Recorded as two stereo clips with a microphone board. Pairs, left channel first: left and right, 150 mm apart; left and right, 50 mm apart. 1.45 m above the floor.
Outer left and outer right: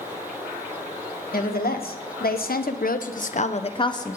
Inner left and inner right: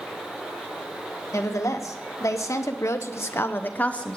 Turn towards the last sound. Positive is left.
turn(degrees=20)  # may be behind; listen again after turning